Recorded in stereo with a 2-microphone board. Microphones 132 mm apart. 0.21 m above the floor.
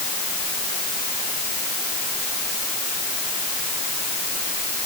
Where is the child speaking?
No child speaking in this recording.